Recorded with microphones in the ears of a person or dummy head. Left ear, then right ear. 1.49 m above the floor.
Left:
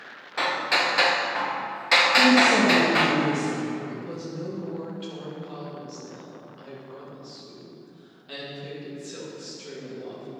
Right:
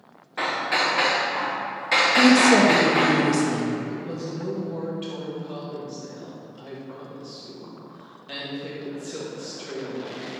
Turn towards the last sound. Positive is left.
turn(degrees=-15)  # may be behind; listen again after turning